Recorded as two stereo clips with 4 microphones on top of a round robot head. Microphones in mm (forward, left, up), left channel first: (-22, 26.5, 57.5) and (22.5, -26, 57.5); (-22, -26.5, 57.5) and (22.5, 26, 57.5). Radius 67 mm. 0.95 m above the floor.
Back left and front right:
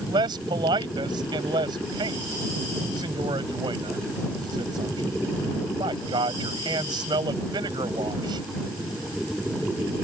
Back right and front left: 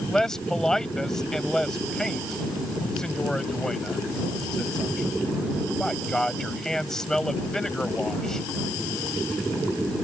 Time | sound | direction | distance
0.1 | a man speaking | 45° right | ?